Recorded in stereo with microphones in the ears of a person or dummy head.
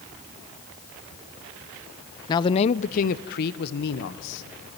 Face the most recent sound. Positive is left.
turn(degrees=60)  # may be behind; listen again after turning